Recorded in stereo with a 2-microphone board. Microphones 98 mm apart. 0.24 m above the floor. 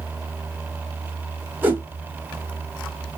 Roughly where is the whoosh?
Centre.